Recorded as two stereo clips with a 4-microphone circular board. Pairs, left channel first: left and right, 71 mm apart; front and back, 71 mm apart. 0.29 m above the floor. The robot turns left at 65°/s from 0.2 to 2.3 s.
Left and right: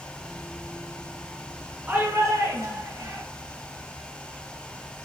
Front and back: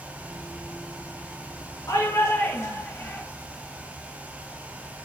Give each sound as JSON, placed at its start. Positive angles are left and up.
{"t": 1.9, "sound": "a shout", "azimuth_deg": -20, "distance_m": 4.0}